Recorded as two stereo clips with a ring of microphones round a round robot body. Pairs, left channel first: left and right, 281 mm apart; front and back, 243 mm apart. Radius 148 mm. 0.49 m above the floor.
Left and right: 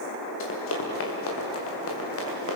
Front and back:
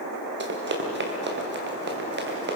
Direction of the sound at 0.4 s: 135° left.